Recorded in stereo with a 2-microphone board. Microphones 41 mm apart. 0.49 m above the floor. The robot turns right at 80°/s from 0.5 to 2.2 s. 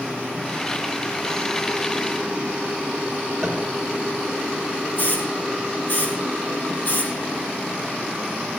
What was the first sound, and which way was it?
Tapping, 10° left (ahead or behind).